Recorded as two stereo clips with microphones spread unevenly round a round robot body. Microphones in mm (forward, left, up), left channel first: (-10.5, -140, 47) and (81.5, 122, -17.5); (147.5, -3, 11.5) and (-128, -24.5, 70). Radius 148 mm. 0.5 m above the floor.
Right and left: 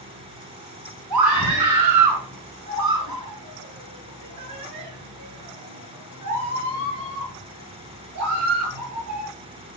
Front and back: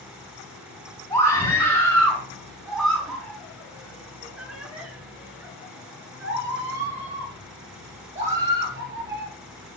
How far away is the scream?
About 5.5 m.